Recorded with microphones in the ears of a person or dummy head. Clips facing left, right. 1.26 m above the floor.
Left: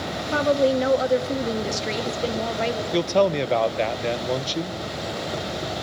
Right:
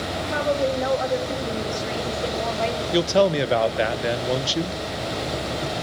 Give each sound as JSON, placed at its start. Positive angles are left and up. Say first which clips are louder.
{"t": 0.3, "sound": "a woman speaking", "louder": "left 4 dB", "side_deg": 50, "distance_m": 2.5}
{"t": 2.9, "sound": "a man speaking", "louder": "right 1 dB", "side_deg": -5, "distance_m": 0.9}